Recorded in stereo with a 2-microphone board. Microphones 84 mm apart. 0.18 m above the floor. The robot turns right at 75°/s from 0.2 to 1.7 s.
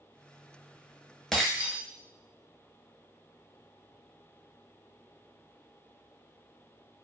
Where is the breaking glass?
10° left (ahead or behind), 0.9 m; by 1.8 s 20° right (ahead or behind), 0.9 m.